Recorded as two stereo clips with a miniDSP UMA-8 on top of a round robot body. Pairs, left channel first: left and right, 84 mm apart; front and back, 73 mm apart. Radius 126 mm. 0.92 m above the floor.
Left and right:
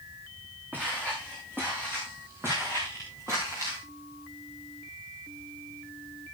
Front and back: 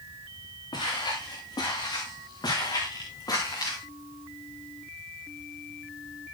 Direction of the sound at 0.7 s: 15° right.